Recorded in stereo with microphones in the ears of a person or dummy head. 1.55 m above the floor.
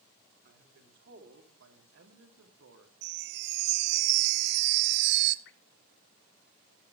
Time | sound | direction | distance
0.5 | a man speaking | 55° right (ahead or behind) | 4 m
3.0 | a chime | 60° right (ahead or behind) | 1.1 m
5.5 | dripping | 60° left (ahead or behind) | 1.8 m